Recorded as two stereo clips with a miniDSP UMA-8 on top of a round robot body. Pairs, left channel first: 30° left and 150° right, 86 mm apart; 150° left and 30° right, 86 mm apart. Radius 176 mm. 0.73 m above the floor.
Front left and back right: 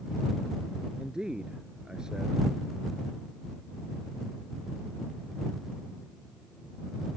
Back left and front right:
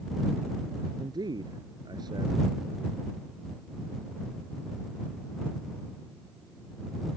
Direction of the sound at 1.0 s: 70° right.